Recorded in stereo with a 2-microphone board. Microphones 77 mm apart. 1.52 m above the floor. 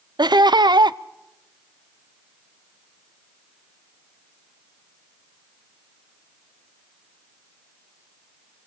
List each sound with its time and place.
0.2 s laughter: 70° right (ahead or behind), 0.6 m